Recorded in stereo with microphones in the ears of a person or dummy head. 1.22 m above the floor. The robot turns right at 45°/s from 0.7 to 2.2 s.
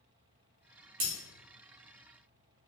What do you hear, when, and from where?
1.0 s breaking glass: 35° right (ahead or behind), 1.0 m; by 1.1 s 30° right (ahead or behind), 1.0 m